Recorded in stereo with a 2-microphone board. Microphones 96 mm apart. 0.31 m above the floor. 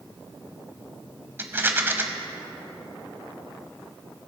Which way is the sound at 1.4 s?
25° right (ahead or behind).